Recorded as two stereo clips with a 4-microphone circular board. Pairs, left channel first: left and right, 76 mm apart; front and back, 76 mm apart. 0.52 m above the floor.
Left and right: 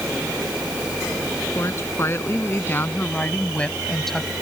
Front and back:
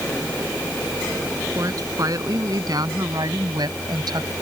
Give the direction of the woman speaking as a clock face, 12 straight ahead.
7 o'clock.